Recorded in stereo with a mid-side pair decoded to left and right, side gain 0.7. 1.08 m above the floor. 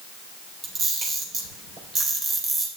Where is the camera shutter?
40° right, 3.5 m.